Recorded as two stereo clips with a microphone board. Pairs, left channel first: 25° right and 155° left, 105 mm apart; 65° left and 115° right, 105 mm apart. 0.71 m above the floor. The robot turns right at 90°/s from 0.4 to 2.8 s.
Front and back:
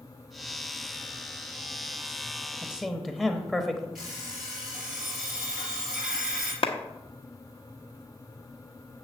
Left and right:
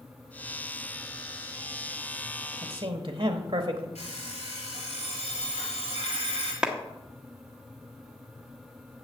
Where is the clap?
30° right, 1.0 m.